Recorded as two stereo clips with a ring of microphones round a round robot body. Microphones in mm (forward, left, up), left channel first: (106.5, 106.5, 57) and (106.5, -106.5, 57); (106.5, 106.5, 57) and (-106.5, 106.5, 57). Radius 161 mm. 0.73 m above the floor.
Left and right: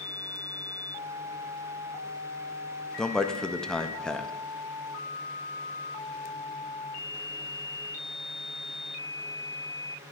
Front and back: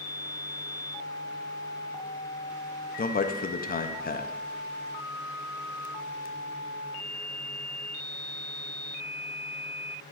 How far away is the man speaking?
About 0.7 m.